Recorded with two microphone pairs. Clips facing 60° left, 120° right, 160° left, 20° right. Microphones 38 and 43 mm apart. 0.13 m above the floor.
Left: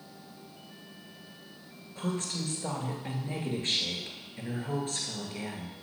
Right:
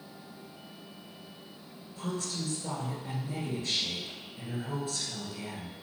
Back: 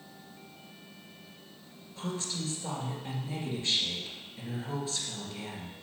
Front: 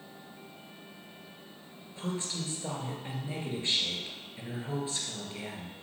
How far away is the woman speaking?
About 2 m.